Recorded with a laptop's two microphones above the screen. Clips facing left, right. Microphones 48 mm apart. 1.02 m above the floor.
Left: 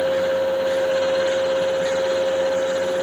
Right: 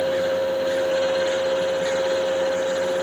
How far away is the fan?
About 1.0 m.